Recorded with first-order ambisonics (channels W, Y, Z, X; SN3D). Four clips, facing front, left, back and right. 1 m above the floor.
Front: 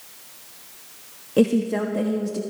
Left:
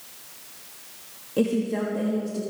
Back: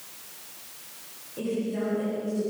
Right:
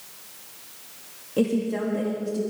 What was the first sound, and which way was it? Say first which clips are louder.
A woman speaking: even, front 10 dB; straight ahead.